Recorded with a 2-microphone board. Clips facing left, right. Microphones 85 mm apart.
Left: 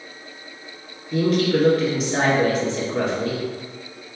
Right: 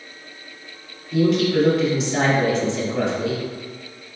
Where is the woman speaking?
45° left (ahead or behind), 1.9 m.